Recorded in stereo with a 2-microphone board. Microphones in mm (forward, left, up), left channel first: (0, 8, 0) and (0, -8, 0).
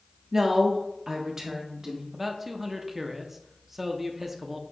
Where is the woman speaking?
25° right (ahead or behind), 1.1 m; by 2.0 s 30° right (ahead or behind), 1.4 m.